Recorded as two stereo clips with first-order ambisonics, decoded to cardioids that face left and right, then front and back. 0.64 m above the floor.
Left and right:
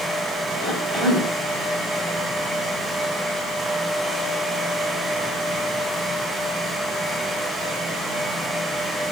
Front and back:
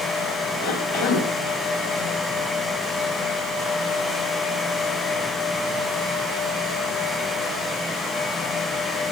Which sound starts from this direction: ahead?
A cough, at 0.6 s.